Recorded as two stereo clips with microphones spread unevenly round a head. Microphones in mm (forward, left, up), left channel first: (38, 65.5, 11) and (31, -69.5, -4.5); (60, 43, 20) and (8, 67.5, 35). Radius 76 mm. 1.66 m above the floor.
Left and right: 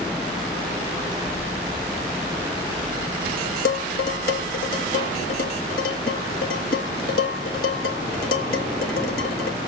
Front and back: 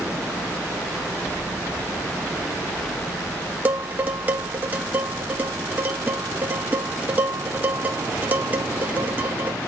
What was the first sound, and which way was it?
Dishes clattering, 100° left.